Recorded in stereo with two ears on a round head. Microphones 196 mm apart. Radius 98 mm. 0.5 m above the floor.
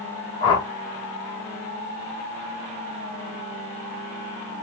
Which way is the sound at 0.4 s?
20° left (ahead or behind).